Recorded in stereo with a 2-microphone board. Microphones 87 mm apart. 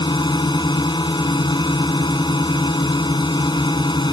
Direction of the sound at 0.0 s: 55° left (ahead or behind).